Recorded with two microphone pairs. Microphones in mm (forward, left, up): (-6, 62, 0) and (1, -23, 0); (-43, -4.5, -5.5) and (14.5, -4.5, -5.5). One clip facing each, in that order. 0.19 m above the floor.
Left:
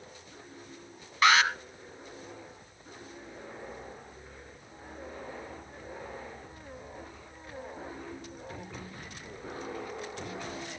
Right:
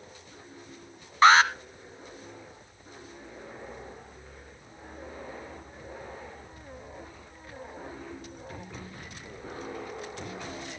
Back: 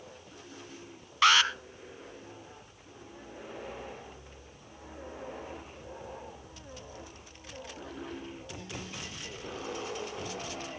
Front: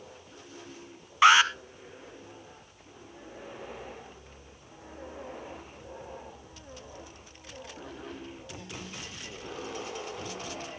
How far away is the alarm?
About 0.9 m.